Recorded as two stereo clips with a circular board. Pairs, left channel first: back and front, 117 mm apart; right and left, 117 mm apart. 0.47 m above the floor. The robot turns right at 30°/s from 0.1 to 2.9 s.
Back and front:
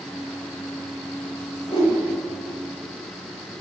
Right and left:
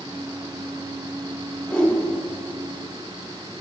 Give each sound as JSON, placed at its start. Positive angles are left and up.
{"t": 1.7, "sound": "a whoosh", "azimuth_deg": -170, "distance_m": 2.0}